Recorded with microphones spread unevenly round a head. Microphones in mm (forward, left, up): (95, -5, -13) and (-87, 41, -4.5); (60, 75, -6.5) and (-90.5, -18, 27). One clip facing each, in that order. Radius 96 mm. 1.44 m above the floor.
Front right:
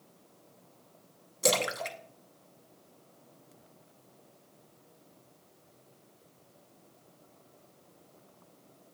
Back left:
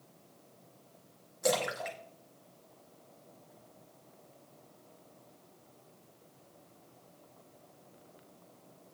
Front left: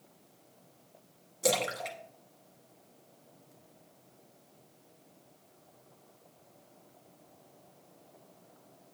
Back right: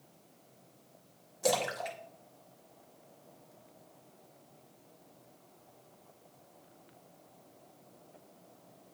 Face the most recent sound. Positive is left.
turn(degrees=-60)